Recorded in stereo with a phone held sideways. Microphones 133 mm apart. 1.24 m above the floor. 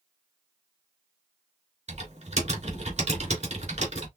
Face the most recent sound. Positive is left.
turn(degrees=-60)  # may be behind; listen again after turning